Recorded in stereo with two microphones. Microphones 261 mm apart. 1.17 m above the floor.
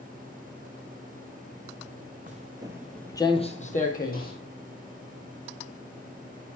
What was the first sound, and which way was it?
Footsteps, 30° right (ahead or behind).